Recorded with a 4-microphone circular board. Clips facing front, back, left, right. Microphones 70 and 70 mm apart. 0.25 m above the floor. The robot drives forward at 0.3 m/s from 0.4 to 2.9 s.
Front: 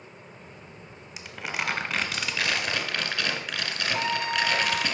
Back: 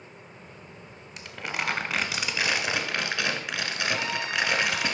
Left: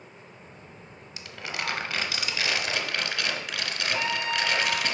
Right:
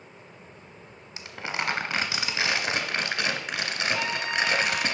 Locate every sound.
1.2 s crumpling: 80° right, 1.1 m; by 4.9 s 135° right, 1.2 m
3.9 s a trumpet: 30° left, 1.2 m